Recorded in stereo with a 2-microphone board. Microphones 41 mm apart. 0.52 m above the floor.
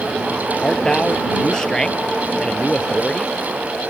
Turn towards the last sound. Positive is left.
turn(degrees=15)  # may be behind; listen again after turning